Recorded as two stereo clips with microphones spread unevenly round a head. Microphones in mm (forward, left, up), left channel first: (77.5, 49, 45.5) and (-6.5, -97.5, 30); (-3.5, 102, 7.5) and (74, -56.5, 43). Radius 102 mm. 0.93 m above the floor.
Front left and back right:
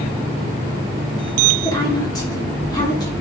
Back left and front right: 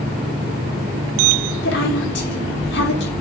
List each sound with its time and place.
1.6 s a woman speaking: 130° left, 3 m